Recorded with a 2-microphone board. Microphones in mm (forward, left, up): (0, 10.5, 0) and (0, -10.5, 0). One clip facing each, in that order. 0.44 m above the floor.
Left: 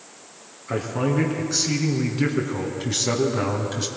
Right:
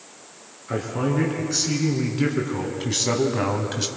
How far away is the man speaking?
About 5 m.